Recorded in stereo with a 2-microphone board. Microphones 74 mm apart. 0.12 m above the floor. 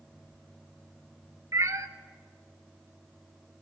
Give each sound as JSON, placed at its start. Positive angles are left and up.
{"t": 1.5, "sound": "a cat meowing", "side_deg": -50, "distance_m": 0.5}